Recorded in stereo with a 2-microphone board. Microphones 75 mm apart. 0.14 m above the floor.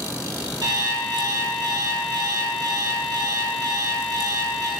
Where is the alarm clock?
70° right (ahead or behind), 1.8 m.